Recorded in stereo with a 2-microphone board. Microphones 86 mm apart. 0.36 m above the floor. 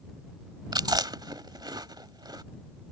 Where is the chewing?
55° right (ahead or behind).